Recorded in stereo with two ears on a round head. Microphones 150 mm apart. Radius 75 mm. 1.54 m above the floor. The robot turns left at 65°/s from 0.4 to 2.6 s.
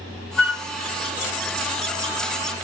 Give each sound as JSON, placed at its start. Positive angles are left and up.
{"t": 0.4, "sound": "a flute", "side_deg": 15, "distance_m": 2.5}